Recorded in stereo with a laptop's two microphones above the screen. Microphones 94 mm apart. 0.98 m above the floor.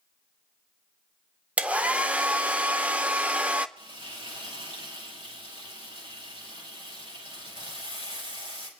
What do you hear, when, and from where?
1.6 s a hair dryer: 15° right (ahead or behind), 0.6 m
3.8 s frying: 75° right (ahead or behind), 4.5 m